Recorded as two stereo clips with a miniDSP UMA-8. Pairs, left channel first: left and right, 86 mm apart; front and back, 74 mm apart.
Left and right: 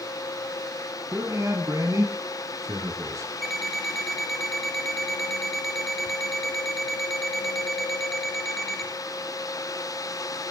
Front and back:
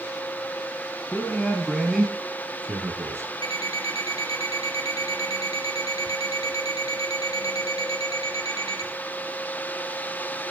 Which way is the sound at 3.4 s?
Straight ahead.